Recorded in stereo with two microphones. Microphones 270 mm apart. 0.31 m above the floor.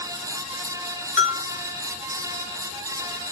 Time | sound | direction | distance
1.2 | a bell | 50° left (ahead or behind) | 1.2 m